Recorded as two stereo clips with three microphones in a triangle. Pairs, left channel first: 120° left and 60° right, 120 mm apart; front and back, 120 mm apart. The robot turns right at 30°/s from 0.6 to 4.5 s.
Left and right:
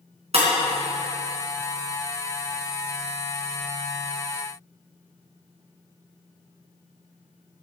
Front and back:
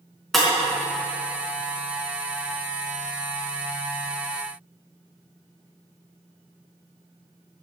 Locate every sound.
0.3 s breaking glass: 90° right, 4.5 m